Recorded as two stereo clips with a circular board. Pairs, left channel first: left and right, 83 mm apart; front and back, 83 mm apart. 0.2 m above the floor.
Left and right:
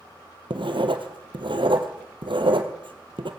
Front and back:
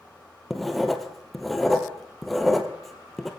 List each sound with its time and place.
0.5 s writing: 90° right, 2.0 m